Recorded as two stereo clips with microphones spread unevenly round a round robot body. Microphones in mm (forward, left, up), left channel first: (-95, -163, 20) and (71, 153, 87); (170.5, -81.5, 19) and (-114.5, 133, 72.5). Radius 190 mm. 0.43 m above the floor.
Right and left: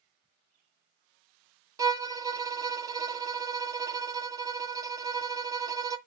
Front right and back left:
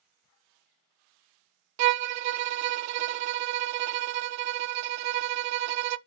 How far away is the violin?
About 0.6 m.